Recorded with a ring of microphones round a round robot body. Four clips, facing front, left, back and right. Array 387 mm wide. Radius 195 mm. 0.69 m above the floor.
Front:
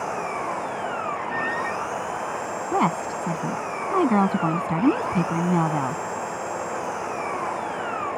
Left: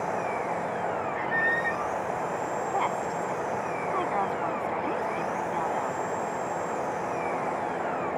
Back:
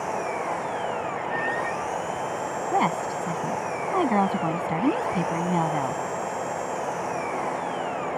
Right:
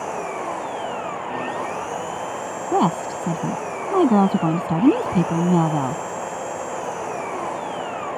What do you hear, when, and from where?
0.0 s an engine running: 70° right
1.1 s a squeak: 85° left
2.7 s a woman speaking: 75° right